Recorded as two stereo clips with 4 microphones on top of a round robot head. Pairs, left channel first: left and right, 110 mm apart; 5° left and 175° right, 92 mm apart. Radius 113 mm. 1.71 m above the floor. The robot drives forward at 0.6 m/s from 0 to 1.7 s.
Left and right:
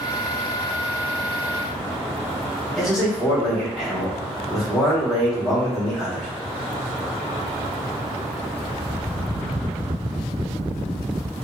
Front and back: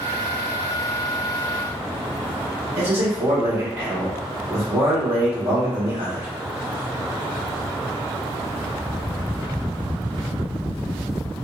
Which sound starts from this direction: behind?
A man speaking, at 2.8 s.